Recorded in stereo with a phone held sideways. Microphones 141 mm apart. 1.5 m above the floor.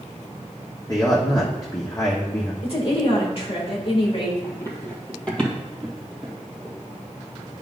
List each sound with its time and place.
0.9 s a man speaking: 30° left (ahead or behind), 0.9 m
2.6 s a woman speaking: 45° left (ahead or behind), 2.0 m
4.4 s running footsteps: 25° left (ahead or behind), 2.0 m; by 6.8 s 10° right (ahead or behind), 2.5 m